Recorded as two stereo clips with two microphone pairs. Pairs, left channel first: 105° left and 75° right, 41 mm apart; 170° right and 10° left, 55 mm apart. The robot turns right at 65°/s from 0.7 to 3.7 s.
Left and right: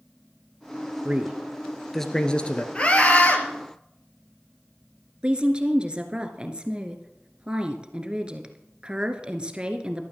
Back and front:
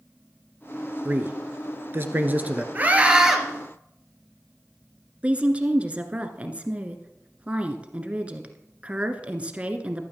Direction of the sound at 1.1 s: 35° right.